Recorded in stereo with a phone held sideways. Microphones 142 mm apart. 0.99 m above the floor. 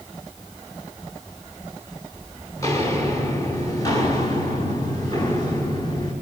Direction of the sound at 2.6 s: 20° left (ahead or behind).